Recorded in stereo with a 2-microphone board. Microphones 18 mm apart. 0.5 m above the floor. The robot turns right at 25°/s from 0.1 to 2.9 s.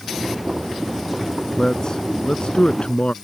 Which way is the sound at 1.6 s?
30° left (ahead or behind).